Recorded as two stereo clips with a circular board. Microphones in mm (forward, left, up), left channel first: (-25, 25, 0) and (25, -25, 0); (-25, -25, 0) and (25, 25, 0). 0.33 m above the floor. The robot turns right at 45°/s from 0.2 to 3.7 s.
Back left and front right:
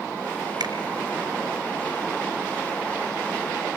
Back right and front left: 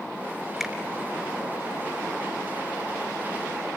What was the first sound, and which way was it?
A finger snap, 40° right.